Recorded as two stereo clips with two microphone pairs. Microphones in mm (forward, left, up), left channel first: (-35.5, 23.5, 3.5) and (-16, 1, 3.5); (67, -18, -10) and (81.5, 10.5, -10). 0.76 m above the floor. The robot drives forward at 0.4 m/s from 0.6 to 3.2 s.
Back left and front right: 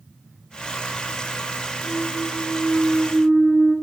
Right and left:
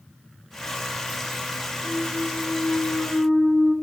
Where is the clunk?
130° left, 2.0 m; by 3.7 s 140° left, 2.5 m.